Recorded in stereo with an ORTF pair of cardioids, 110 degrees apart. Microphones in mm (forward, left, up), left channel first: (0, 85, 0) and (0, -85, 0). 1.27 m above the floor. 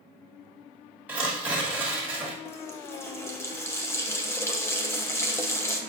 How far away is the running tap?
About 1.0 m.